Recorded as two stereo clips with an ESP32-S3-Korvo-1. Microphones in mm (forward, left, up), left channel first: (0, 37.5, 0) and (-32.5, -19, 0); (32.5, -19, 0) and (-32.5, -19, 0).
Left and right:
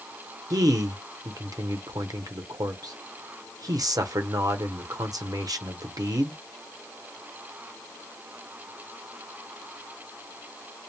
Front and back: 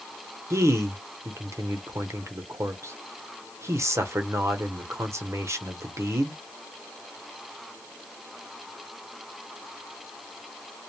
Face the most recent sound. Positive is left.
turn(degrees=-135)